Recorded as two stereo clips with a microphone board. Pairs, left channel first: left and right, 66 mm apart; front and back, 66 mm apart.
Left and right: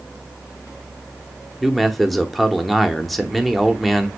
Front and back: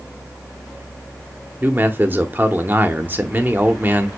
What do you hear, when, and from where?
1.6 s a man speaking: 175° left, 0.8 m